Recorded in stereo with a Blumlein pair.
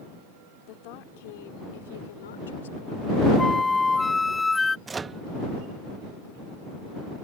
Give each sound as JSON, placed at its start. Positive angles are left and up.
{"t": 0.7, "sound": "a woman speaking", "azimuth_deg": 40}
{"t": 3.4, "sound": "a flute", "azimuth_deg": 10}
{"t": 4.9, "sound": "a microwave", "azimuth_deg": -15}